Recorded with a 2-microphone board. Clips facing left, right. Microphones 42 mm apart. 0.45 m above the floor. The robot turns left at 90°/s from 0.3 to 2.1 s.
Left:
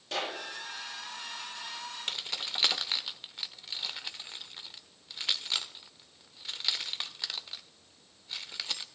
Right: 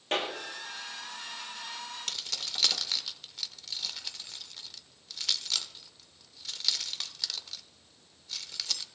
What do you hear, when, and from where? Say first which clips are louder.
0.1 s a clap: right 3 dB; 45° right (ahead or behind), 9.5 m
2.1 s keys jangling: left 4 dB; 20° left (ahead or behind), 0.9 m